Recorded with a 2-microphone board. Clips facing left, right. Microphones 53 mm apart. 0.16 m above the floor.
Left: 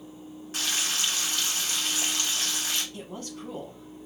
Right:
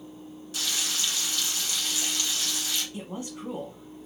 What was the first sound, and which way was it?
Frying, 40° left (ahead or behind).